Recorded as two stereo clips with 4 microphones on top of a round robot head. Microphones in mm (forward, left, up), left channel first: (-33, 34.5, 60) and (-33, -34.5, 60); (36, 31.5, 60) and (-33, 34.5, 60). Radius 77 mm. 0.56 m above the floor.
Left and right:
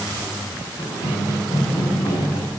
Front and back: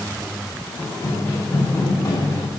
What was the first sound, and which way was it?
Running footsteps, 65° left.